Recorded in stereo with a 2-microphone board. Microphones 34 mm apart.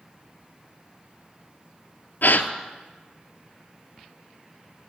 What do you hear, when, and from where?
2.2 s a gasp: 70° left (ahead or behind), 0.7 m